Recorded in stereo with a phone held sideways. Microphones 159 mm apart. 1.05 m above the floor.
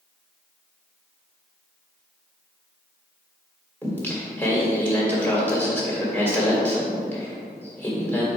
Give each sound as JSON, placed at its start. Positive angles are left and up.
{"t": 3.8, "sound": "singing", "side_deg": 10, "distance_m": 1.7}